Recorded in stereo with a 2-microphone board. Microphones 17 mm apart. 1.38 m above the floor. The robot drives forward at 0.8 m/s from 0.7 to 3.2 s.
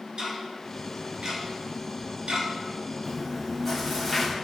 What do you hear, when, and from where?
0.2 s ticking: 75° right (ahead or behind), 5 m; by 2.5 s 80° right, 5 m
3.0 s chewing: centre (ahead or behind), 4 m